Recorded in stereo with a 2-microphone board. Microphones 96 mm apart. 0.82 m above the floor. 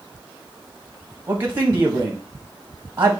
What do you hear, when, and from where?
1.3 s a man speaking: 25° right (ahead or behind), 1.0 m